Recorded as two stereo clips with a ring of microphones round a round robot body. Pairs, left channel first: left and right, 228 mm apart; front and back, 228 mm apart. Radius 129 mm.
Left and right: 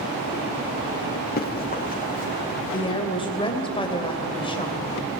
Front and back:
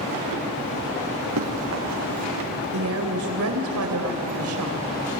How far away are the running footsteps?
About 5 m.